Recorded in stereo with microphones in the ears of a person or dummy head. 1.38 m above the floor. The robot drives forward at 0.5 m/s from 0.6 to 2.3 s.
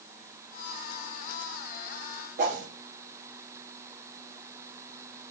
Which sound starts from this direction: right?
A whoosh, at 2.4 s.